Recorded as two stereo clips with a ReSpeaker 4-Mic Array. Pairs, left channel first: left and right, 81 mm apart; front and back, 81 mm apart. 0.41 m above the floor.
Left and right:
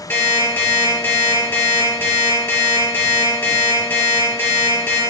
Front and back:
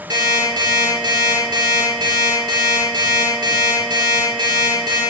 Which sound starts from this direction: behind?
An alarm clock, at 0.1 s.